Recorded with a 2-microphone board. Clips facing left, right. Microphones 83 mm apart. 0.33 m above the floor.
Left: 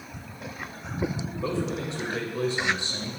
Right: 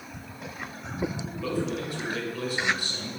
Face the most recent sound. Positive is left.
turn(degrees=25)  # may be behind; listen again after turning